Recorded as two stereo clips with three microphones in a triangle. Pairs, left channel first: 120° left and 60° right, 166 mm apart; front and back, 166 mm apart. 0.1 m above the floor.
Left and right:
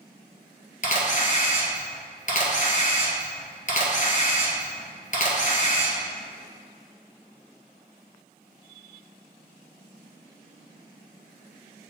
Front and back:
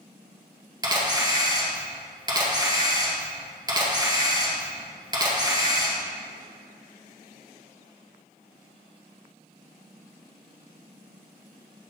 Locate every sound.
0.8 s a camera shutter: 125° left, 1.8 m